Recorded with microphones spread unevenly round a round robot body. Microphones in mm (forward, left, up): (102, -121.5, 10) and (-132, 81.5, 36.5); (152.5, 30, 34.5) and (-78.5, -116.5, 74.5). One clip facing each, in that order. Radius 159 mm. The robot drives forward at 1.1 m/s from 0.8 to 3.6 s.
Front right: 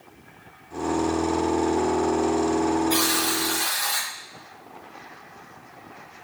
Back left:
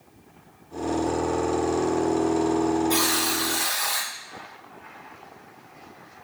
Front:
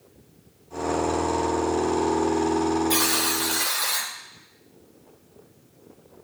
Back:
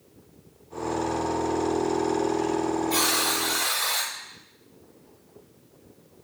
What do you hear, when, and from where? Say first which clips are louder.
2.9 s a buzzer: front right 1 dB, front 2 dB; 60° left, 4.5 m; by 4.1 s 70° left, 4 m